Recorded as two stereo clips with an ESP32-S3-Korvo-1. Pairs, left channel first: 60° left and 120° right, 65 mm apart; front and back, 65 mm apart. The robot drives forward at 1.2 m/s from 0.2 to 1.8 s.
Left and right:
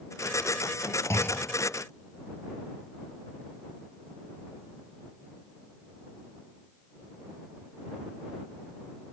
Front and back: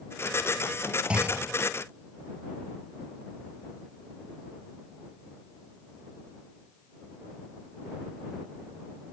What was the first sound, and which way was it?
A clunk, 105° left.